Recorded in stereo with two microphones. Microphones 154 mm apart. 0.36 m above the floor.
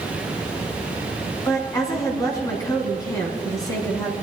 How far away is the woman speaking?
About 3 m.